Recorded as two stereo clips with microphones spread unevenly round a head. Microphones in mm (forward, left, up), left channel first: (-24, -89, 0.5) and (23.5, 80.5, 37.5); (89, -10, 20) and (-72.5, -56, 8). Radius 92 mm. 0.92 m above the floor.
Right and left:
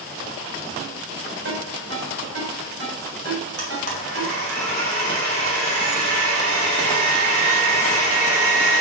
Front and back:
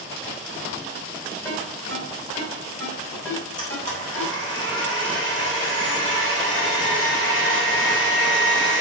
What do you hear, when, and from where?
1.4 s a ringtone: 95° left, 4.5 m
3.6 s a blender: 85° left, 3 m